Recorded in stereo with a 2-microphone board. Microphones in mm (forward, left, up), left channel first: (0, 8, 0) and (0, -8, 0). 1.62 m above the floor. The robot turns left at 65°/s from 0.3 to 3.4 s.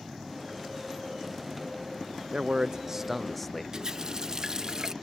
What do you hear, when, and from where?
2.3 s a man speaking: 115° right; by 3.6 s 175° left
3.7 s a running tap: 35° right (ahead or behind)